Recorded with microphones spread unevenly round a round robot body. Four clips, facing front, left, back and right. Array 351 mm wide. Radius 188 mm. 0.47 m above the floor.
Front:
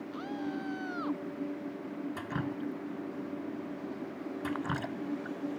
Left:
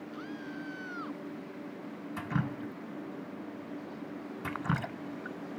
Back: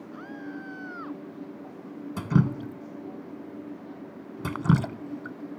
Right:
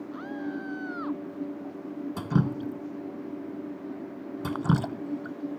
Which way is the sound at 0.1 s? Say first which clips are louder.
Right 8 dB, front 2 dB; 25° right.